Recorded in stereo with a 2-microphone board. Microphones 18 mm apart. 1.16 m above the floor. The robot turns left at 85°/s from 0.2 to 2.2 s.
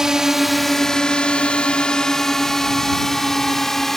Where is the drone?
30° right (ahead or behind); by 4.0 s 15° left (ahead or behind).